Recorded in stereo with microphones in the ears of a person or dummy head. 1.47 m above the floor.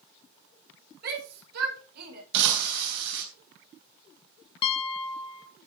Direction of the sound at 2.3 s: 60° right (ahead or behind).